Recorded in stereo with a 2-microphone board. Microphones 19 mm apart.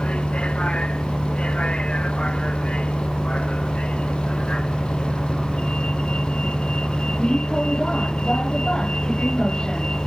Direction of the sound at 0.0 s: 70° left (ahead or behind).